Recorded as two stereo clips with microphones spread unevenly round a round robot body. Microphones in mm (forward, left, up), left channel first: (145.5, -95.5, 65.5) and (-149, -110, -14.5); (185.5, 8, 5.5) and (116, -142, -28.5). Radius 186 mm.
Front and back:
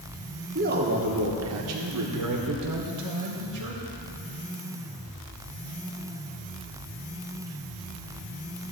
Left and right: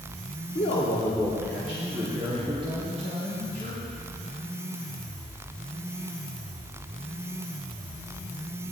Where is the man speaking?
125° left, 1.3 m; by 3.8 s 175° right, 3 m.